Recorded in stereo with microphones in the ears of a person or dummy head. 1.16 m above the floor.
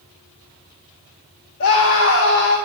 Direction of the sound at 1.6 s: 60° left (ahead or behind).